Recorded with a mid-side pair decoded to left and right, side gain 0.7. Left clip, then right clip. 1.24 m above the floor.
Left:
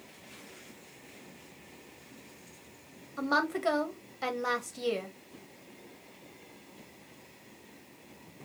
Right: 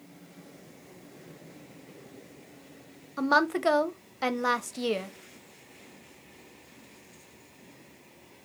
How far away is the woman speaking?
About 0.8 m.